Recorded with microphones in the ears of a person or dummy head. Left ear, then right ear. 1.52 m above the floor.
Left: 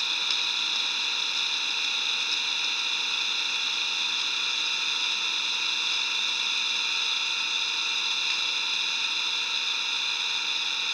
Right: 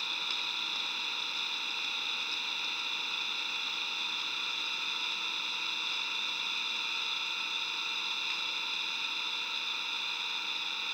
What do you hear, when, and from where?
0.0 s an engine running: 15° left (ahead or behind)